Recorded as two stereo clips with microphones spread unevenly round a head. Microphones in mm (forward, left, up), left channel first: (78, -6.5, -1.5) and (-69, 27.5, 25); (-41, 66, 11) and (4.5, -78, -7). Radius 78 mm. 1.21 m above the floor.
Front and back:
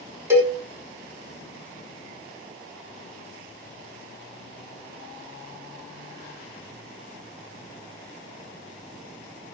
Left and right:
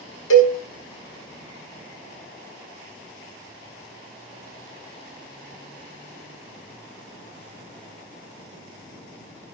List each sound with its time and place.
0.3 s a cowbell: 90° left, 5 m